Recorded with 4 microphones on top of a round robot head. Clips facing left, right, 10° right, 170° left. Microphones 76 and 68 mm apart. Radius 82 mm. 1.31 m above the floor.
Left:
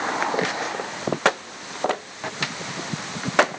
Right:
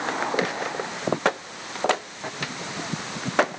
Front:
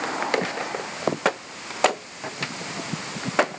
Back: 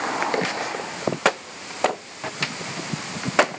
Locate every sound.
Only background noise.